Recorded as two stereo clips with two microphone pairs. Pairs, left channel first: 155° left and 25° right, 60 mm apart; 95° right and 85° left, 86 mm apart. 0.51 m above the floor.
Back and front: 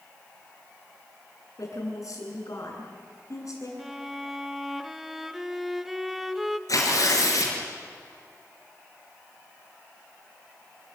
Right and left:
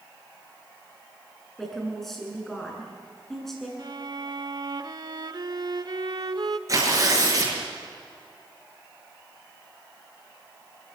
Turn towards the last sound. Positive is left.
turn(degrees=135)